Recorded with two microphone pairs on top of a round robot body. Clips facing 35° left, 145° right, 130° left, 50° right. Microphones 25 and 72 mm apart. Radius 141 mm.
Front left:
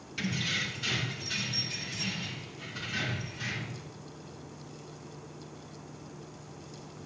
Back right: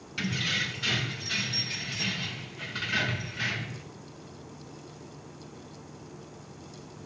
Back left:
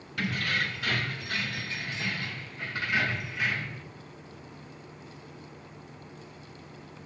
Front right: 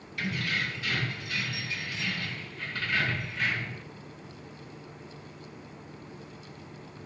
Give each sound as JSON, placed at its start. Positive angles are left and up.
{"t": 0.2, "sound": "keys jangling", "azimuth_deg": 150, "distance_m": 3.5}